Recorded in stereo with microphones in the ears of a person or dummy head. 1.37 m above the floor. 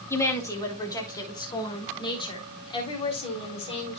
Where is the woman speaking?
15° left (ahead or behind), 2.5 m; by 4.0 s 35° left (ahead or behind), 4 m.